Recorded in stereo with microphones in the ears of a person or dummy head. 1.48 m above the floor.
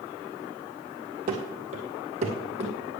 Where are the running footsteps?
35° right (ahead or behind), 1.8 m; by 2.7 s 30° right (ahead or behind), 2.5 m.